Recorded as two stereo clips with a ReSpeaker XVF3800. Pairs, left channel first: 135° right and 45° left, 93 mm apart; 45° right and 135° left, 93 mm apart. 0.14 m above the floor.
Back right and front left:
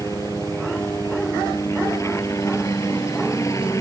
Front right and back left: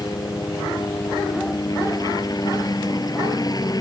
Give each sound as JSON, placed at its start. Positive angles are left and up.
{"t": 0.0, "sound": "a helicopter", "azimuth_deg": -85}